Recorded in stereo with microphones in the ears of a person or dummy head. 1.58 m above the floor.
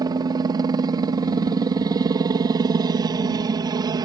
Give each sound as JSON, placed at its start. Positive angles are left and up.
{"t": 0.0, "sound": "a helicopter", "side_deg": -20}